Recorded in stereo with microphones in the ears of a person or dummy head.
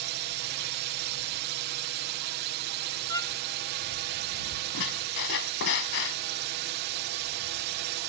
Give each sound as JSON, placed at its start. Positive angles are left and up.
{"t": 0.0, "sound": "a drone", "side_deg": -55}
{"t": 3.1, "sound": "a violin", "side_deg": 15}
{"t": 4.7, "sound": "a squeak", "side_deg": 55}